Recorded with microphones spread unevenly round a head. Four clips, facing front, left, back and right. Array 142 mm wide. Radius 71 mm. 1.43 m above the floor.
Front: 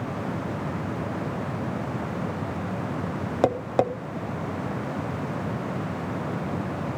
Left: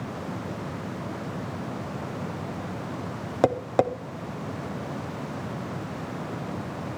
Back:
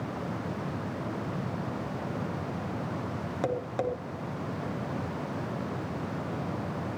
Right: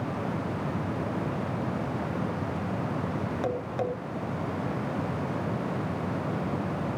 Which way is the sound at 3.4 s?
45° left.